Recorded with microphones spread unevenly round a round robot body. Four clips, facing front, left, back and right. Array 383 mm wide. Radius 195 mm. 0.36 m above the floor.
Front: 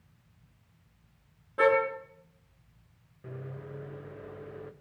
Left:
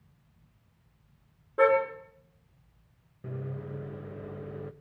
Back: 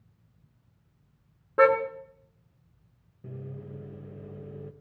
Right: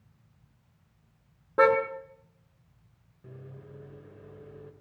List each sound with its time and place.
1.6 s a car horn: 105° right, 3.5 m
3.2 s a microwave: 115° left, 1.0 m